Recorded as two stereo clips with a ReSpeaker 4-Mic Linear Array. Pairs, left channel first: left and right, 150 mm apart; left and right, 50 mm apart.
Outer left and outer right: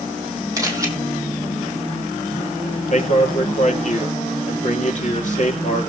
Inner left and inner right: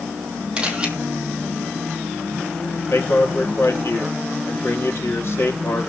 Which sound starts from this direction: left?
A man speaking, at 2.9 s.